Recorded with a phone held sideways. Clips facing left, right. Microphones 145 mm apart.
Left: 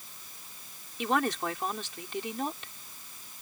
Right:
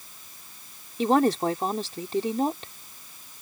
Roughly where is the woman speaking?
Right.